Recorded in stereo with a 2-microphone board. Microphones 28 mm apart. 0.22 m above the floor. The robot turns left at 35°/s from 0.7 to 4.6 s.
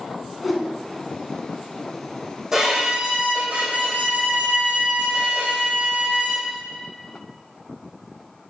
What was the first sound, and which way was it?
A whoosh, 5° right (ahead or behind).